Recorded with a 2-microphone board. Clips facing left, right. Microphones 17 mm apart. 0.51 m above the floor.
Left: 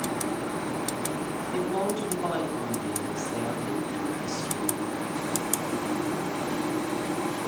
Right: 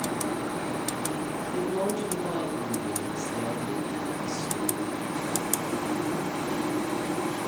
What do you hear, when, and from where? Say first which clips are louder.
1.5 s a woman speaking: left 1 dB; 70° left (ahead or behind), 3.5 m